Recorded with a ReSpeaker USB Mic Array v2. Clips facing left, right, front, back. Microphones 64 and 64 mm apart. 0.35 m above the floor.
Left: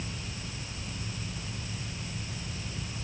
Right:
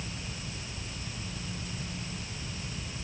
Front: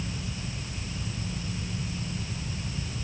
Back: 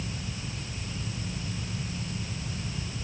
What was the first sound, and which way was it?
Only background noise.